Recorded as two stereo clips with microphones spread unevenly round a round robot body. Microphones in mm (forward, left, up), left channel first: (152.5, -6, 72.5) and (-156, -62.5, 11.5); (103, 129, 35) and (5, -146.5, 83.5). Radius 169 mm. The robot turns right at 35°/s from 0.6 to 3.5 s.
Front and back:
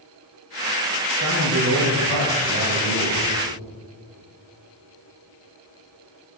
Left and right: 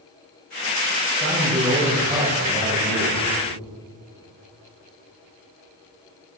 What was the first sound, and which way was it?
A man speaking, 145° left.